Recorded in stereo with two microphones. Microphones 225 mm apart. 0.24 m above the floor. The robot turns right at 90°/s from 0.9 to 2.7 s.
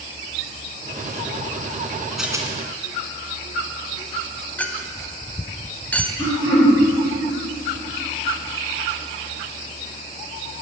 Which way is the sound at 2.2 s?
Centre (ahead or behind).